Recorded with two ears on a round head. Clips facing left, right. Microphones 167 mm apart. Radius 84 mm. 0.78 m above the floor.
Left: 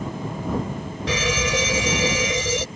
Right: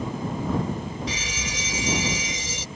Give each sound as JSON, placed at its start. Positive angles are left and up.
{"t": 1.1, "sound": "a fire alarm", "side_deg": 50}